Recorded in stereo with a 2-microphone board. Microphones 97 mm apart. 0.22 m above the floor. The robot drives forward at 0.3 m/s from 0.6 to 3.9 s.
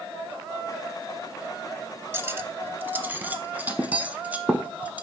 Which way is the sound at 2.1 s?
25° right (ahead or behind).